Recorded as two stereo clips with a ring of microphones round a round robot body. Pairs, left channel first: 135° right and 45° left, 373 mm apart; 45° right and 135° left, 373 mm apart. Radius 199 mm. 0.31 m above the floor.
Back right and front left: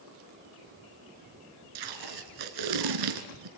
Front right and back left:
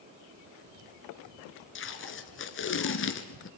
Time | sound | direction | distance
1.8 | tape being pulled | 15° left | 1.6 m